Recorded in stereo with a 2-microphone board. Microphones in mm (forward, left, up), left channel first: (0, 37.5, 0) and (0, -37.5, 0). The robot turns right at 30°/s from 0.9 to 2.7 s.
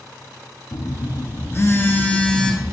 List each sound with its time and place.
0.7 s a phone buzzing: 130° left, 0.8 m; by 2.7 s 175° right, 0.8 m